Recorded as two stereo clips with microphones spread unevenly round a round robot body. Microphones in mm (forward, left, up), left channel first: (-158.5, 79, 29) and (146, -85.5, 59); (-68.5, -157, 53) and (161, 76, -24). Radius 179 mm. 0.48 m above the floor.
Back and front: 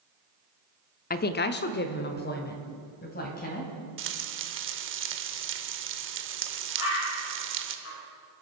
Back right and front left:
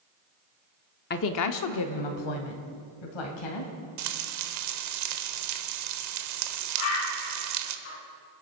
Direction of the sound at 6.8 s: 155° right.